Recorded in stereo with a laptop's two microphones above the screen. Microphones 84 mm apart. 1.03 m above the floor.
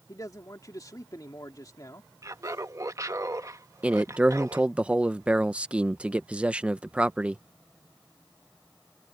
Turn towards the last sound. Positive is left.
turn(degrees=-15)  # may be behind; listen again after turning